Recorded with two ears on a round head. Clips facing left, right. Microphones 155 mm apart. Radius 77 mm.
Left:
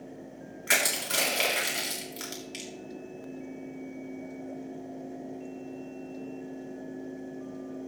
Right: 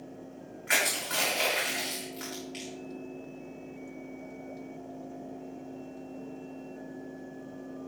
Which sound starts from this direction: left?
Crushing, at 0.7 s.